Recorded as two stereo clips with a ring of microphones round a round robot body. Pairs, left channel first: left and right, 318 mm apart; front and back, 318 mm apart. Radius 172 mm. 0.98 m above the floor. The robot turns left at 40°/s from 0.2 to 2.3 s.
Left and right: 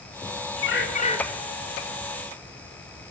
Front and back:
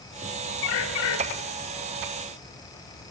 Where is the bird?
35° left, 1.9 m; by 1.2 s 15° left, 1.9 m.